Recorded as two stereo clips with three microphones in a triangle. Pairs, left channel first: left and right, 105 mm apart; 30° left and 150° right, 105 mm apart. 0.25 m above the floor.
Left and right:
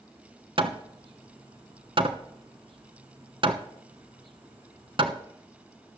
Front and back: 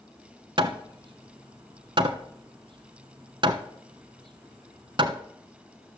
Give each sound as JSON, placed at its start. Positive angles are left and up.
{"t": 0.6, "sound": "hammering", "azimuth_deg": -120, "distance_m": 1.1}